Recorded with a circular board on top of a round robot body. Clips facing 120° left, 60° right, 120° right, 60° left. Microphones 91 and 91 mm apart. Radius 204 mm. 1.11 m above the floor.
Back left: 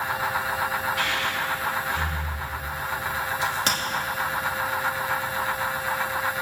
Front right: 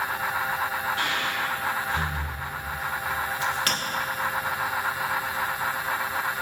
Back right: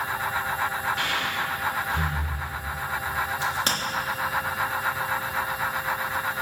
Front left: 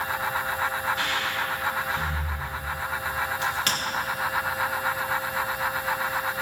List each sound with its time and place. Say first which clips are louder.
1.0 s breathing: back left 1 dB, even; 115° right, 2.5 m
3.4 s a crack: back left 2 dB, back right 1 dB; straight behind, 1.3 m